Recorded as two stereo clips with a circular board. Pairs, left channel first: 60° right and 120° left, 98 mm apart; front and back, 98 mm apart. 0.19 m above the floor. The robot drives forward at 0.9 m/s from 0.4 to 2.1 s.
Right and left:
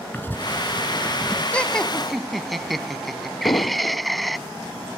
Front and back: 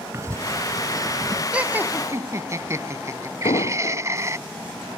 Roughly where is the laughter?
Behind right.